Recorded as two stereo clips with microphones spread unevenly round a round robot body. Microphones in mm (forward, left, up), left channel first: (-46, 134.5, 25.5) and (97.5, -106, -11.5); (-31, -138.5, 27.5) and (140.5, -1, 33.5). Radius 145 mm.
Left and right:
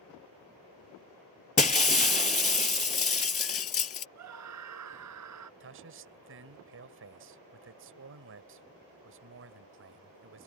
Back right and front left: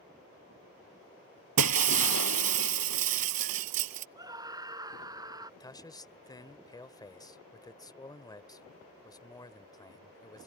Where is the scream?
35° right.